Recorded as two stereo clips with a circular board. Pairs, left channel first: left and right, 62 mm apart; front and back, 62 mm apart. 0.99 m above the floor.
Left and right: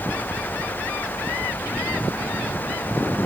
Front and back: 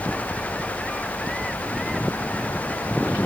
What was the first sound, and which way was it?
Only background noise.